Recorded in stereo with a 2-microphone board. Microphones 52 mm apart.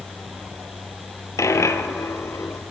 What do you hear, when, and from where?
1.4 s a dropped coin: 80° left, 0.6 m